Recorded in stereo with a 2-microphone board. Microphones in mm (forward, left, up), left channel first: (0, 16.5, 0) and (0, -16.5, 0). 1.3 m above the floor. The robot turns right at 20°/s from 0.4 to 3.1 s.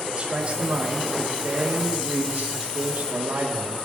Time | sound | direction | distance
0.2 | a man speaking | 145° right | 3 m